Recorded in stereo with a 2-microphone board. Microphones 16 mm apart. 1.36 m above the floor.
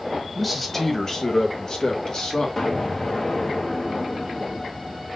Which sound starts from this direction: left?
An explosion, at 2.6 s.